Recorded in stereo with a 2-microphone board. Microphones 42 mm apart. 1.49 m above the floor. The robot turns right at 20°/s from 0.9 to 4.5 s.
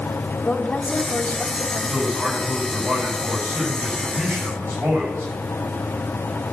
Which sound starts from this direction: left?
A woman speaking, at 0.5 s.